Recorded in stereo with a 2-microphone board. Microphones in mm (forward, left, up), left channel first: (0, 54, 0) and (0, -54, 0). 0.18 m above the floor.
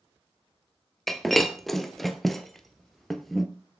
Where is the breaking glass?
5° left (ahead or behind), 1.1 m.